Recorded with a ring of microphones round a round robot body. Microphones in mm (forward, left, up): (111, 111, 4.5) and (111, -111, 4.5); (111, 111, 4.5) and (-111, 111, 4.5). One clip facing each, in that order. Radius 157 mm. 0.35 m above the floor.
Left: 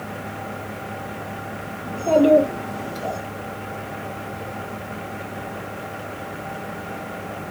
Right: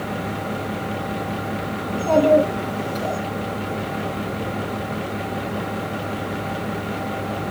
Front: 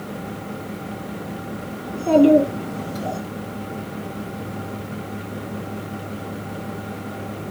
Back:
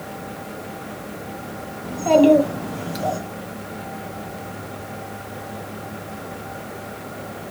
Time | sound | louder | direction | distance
1.8 | a child speaking | left 1 dB, even | 165° right | 2.5 m